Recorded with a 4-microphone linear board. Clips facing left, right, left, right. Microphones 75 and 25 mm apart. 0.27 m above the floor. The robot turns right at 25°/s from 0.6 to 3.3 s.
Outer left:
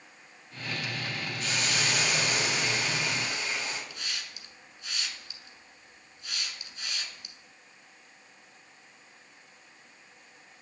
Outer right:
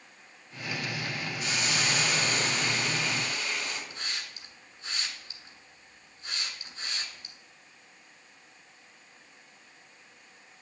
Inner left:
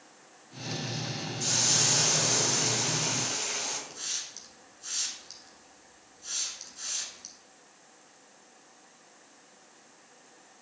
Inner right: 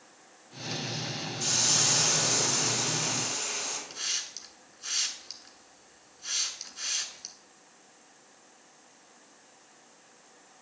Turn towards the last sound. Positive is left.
turn(degrees=-35)  # may be behind; listen again after turning